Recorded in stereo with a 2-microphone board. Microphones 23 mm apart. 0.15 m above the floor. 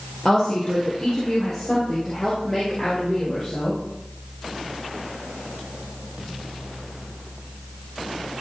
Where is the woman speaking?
25° left (ahead or behind), 3.5 m; by 3.8 s 5° left (ahead or behind), 6 m.